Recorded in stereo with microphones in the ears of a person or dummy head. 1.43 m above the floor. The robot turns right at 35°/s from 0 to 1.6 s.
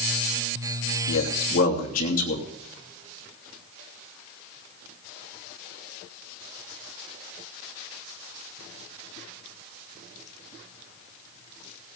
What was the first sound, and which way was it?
A man speaking, 60° left (ahead or behind).